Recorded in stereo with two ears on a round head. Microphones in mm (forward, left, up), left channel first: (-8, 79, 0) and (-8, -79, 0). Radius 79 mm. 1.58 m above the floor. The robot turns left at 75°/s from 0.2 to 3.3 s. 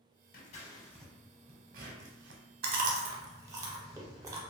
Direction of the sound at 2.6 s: 60° right (ahead or behind).